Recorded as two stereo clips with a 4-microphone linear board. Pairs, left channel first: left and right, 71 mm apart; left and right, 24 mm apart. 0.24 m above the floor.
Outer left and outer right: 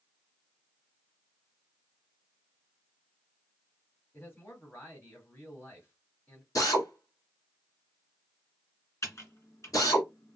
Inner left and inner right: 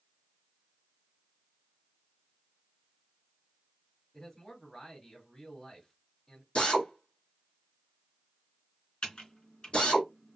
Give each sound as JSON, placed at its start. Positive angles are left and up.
{"t": 4.1, "sound": "a man speaking", "side_deg": 30, "distance_m": 1.8}
{"t": 6.5, "sound": "a drill", "side_deg": 55, "distance_m": 1.9}
{"t": 9.0, "sound": "typing on a keyboard", "side_deg": 45, "distance_m": 2.0}